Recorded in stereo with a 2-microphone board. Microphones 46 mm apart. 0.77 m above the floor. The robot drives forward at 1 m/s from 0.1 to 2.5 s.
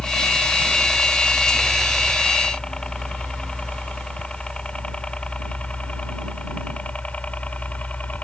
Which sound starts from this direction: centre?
A helicopter, at 0.0 s.